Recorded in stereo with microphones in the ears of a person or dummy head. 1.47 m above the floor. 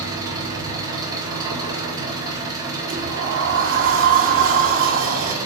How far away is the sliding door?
About 3 m.